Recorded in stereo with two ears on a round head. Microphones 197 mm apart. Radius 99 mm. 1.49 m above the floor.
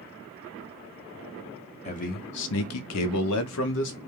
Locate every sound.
1.9 s a man speaking: 30° left (ahead or behind), 0.7 m; by 4.0 s 50° left (ahead or behind), 0.9 m